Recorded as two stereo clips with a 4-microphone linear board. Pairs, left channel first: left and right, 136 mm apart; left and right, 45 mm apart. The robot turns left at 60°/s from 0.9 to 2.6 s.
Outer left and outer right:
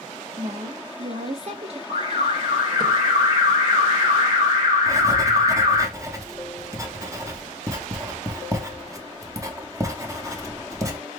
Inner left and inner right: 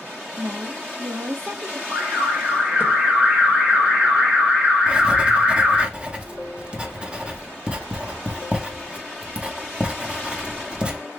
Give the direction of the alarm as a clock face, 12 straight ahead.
3 o'clock.